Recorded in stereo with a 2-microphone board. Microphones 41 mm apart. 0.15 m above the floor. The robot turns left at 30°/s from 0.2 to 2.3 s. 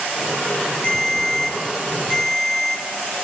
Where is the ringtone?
105° left, 0.6 m; by 2.8 s 65° left, 0.6 m.